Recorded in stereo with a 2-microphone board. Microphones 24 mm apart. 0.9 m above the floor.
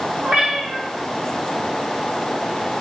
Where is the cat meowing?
60° right (ahead or behind), 1.1 m.